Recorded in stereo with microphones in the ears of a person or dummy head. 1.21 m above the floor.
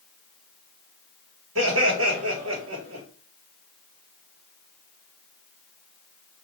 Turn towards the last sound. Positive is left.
turn(degrees=-75)  # may be behind; listen again after turning